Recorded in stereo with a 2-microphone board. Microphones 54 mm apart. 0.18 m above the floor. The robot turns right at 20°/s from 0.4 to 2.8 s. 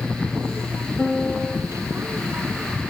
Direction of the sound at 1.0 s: 5° left (ahead or behind).